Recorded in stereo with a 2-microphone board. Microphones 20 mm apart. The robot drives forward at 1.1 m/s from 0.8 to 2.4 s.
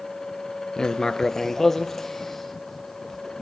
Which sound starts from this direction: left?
Writing, at 0.8 s.